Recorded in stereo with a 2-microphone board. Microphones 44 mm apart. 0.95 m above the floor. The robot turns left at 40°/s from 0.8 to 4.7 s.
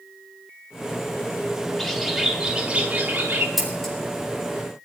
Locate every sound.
1.8 s a bird: 5° left, 1.3 m; by 3.5 s 65° right, 1.3 m
3.6 s scissors: centre (ahead or behind), 4 m; by 3.9 s 15° left (ahead or behind), 4 m